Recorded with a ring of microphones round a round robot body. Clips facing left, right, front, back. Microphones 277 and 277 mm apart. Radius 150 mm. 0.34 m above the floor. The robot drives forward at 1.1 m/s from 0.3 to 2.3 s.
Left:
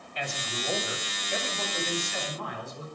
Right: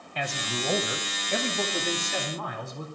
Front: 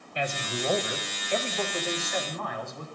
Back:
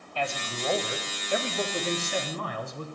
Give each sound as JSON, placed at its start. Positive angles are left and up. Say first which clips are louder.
{"t": 0.1, "sound": "a man speaking", "louder": "right 4 dB, front 2 dB", "azimuth_deg": -70, "distance_m": 2.0}